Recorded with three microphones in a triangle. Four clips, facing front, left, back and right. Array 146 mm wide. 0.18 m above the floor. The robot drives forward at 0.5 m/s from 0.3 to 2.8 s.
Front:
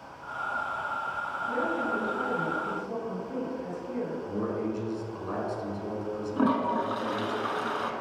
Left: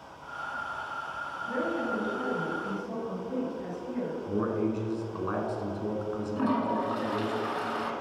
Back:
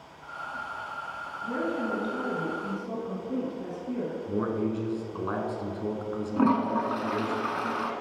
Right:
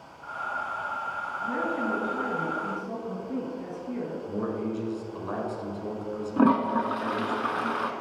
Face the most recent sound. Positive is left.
turn(degrees=-100)